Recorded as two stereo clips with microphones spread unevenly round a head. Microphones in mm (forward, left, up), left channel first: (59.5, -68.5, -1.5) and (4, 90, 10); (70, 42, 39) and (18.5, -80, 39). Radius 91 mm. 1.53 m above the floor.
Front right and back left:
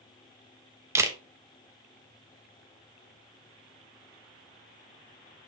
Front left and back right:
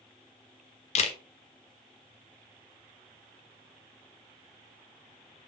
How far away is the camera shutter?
About 1.0 m.